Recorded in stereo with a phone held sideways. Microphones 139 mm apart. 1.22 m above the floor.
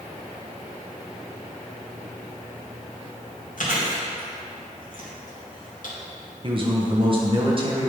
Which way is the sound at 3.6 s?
75° left (ahead or behind).